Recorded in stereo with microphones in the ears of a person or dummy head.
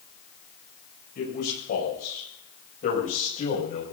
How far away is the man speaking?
About 7.5 m.